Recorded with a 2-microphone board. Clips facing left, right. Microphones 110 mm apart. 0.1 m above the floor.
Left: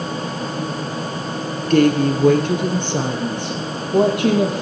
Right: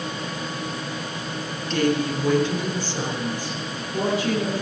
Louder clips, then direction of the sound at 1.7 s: Left 8 dB; 50° left (ahead or behind).